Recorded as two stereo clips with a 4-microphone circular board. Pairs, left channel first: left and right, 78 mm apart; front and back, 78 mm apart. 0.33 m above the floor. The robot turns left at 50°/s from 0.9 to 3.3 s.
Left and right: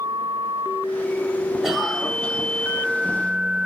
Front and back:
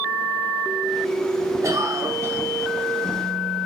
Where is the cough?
175° right, 1.4 m; by 2.4 s 150° left, 1.4 m.